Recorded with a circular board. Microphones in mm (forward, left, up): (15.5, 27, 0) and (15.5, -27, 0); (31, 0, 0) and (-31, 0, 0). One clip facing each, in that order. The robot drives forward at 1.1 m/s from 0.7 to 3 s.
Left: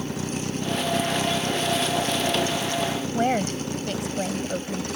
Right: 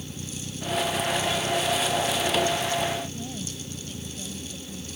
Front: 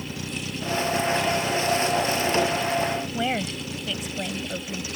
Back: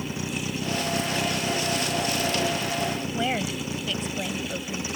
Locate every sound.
0.0 s a vehicle: 110° left
3.1 s a woman speaking: 85° left